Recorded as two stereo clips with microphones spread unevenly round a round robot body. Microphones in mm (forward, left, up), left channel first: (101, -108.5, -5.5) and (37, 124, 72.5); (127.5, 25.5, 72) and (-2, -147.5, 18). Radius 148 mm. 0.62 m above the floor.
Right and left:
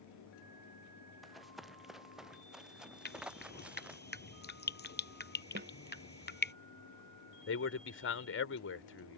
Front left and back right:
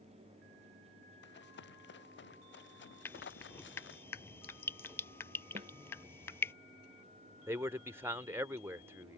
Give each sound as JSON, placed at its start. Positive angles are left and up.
{"t": 1.2, "sound": "running footsteps", "azimuth_deg": 15}
{"t": 3.0, "sound": "dripping", "azimuth_deg": -25}
{"t": 5.5, "sound": "a snare drum", "azimuth_deg": 165}
{"t": 7.5, "sound": "a man speaking", "azimuth_deg": -55}